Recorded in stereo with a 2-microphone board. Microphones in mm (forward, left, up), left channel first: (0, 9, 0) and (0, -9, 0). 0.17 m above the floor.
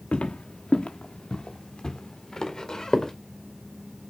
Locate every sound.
0.1 s footsteps: 80° left, 0.9 m; by 3.1 s 30° left (ahead or behind), 3 m